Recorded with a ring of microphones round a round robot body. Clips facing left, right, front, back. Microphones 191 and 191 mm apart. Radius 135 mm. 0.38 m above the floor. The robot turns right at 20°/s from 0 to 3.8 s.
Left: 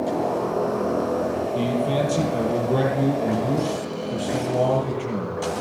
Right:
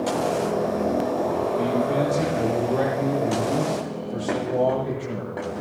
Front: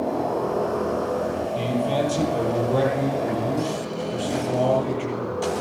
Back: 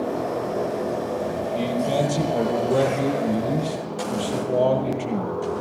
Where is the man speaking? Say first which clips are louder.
Even, back 2 dB; 95° left, 10 m; by 5.4 s 140° left, 10 m.